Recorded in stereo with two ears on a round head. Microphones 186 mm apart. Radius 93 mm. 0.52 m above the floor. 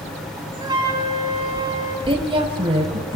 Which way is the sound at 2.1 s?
25° right (ahead or behind).